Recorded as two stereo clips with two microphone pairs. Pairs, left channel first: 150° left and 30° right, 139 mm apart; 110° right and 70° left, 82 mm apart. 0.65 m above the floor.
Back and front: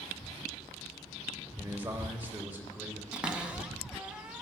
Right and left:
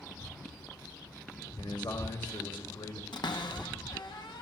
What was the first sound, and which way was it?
A man speaking, 105° right.